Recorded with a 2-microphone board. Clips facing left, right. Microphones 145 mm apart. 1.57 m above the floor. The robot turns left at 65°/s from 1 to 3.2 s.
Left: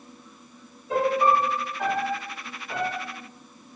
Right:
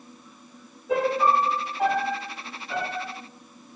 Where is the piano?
100° right, 6 m; by 3.1 s 125° left, 6 m.